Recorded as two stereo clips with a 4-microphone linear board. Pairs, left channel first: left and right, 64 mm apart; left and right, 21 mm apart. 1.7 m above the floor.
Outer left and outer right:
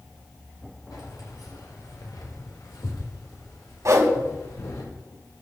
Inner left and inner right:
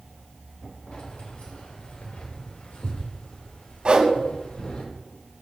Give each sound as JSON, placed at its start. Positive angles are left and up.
{"t": 0.9, "sound": "keys jangling", "side_deg": 80, "distance_m": 5.5}
{"t": 3.9, "sound": "a whoosh", "side_deg": -55, "distance_m": 2.5}